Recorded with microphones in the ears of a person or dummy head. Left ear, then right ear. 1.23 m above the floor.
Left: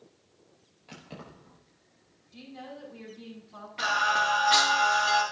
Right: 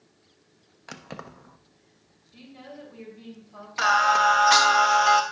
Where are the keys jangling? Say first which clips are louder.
Right 6 dB; 60° right (ahead or behind), 0.7 m.